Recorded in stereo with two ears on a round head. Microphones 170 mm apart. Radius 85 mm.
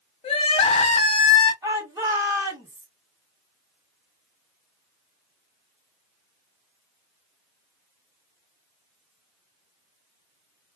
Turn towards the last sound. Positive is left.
turn(degrees=-15)  # may be behind; listen again after turning